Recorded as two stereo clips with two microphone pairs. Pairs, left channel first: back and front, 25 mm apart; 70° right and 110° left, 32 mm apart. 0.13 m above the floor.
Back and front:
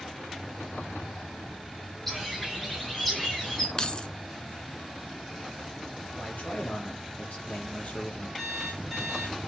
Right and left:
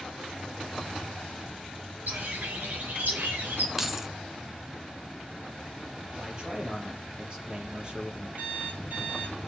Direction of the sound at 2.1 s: 100° left.